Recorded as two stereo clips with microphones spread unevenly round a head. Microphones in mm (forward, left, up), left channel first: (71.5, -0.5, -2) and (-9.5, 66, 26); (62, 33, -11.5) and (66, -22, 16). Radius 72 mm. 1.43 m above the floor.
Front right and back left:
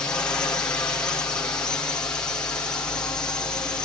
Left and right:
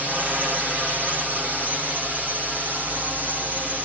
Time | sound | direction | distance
0.0 | a drone | straight ahead | ?